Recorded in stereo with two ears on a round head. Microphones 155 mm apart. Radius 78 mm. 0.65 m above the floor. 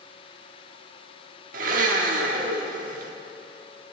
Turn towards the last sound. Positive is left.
turn(degrees=-50)  # may be behind; listen again after turning